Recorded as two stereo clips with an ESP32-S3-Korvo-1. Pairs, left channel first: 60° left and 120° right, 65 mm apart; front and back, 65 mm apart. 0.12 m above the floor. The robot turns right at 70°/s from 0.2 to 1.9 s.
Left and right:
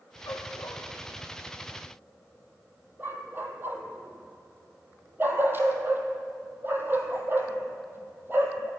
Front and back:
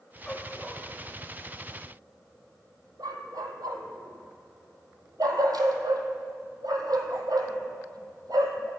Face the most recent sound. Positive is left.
turn(degrees=-175)